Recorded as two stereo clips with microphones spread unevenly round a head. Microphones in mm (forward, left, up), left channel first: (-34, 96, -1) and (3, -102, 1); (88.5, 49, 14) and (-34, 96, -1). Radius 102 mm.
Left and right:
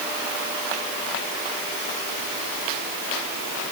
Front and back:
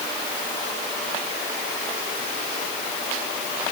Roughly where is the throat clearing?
No throat clearing in this recording.